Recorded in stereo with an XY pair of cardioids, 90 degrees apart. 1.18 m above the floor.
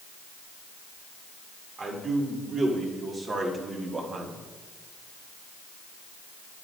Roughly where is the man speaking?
Ahead right.